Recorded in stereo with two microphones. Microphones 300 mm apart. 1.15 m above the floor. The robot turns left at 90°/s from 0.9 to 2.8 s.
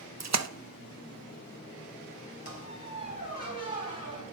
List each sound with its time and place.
0.2 s a splash: 60° right (ahead or behind), 0.6 m
2.5 s a squeak: 130° left, 3 m; by 4.2 s 100° left, 3 m